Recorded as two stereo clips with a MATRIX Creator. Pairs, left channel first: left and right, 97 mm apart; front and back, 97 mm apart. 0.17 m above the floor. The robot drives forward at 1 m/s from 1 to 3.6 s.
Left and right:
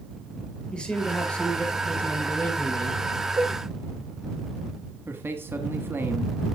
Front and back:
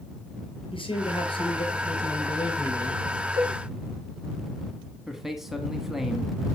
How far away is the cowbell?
About 7.5 m.